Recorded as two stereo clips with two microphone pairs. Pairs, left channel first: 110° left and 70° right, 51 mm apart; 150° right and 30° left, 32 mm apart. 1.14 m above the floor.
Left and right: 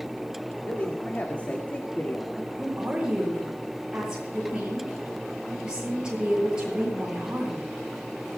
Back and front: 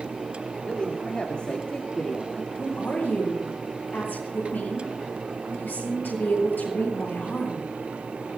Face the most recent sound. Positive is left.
turn(degrees=-145)